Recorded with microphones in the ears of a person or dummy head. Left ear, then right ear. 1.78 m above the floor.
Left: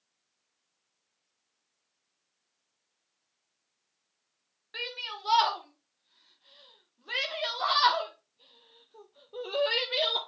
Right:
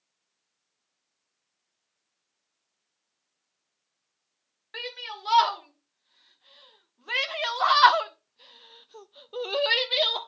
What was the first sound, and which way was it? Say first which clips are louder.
A shout: even; 15° right (ahead or behind).